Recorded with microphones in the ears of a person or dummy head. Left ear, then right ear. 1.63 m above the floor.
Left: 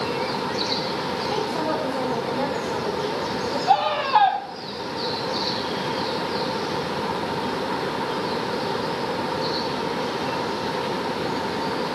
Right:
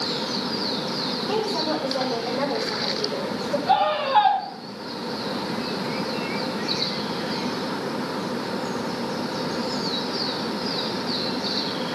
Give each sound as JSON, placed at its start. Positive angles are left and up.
{"t": 1.3, "sound": "a woman speaking", "side_deg": -20, "distance_m": 6.0}
{"t": 3.7, "sound": "a scream", "side_deg": 30, "distance_m": 5.5}